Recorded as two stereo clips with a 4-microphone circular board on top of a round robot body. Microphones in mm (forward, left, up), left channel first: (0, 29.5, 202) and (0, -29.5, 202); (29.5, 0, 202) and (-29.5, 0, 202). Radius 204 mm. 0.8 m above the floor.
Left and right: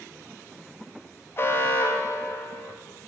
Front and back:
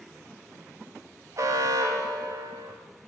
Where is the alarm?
145° left, 0.8 m.